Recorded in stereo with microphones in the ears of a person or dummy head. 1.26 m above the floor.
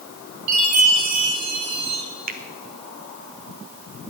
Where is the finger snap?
35° right (ahead or behind), 0.9 m.